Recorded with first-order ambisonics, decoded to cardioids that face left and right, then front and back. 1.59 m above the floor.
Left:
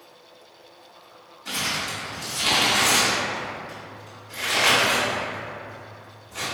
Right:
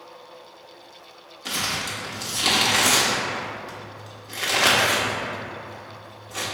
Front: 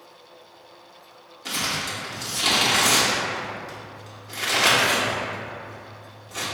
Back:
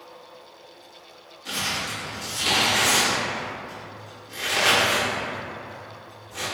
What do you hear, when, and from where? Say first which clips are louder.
1.4 s crumpling: even, front 1 dB; 65° right, 1.1 m